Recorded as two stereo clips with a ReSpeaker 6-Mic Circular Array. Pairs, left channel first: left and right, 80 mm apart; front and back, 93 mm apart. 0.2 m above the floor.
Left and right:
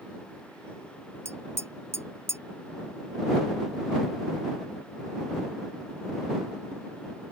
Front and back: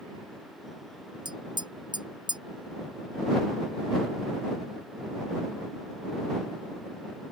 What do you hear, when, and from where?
1.2 s tapping: 145° right